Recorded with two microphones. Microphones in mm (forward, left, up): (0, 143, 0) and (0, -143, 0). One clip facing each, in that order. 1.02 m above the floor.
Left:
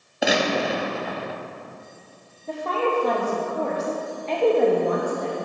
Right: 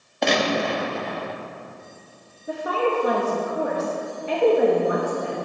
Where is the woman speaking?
10° right (ahead or behind), 1.1 m.